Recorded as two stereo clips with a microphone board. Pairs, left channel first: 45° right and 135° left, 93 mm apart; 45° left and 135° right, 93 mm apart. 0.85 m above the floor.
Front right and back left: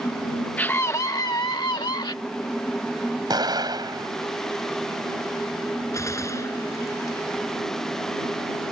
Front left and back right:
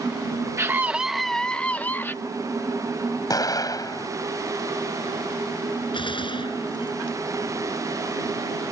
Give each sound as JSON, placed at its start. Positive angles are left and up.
{"t": 0.6, "sound": "a scream", "azimuth_deg": -105}
{"t": 3.3, "sound": "an explosion", "azimuth_deg": 95}
{"t": 5.9, "sound": "a gunshot", "azimuth_deg": 15}